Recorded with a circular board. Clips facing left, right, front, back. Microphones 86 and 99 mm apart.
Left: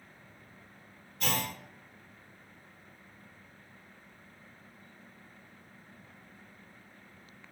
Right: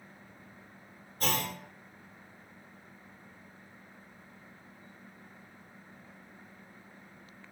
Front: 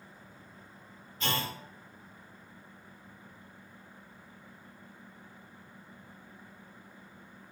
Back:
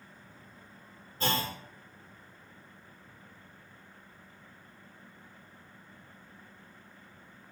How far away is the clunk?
About 0.7 m.